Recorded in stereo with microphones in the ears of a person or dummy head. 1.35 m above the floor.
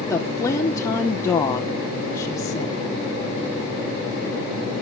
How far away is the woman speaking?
About 0.8 m.